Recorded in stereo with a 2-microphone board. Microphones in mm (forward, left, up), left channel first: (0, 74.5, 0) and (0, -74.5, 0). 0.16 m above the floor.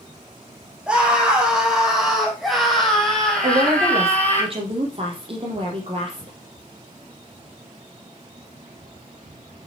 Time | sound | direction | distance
0.9 | a scream | 5° right (ahead or behind) | 6.5 m
3.4 | a woman speaking | 40° right (ahead or behind) | 5 m